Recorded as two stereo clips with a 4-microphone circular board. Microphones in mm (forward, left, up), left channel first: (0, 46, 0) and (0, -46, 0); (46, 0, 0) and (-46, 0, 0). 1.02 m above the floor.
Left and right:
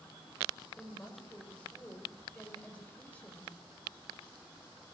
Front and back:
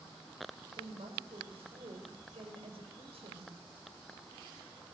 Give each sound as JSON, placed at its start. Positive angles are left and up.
{"t": 0.8, "sound": "a woman speaking", "azimuth_deg": 165, "distance_m": 5.0}